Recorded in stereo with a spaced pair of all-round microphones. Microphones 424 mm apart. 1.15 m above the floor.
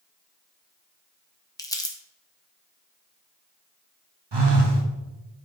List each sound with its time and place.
1.6 s crumpling: 10° left (ahead or behind), 0.9 m
4.3 s a phone buzzing: 60° right (ahead or behind), 1.1 m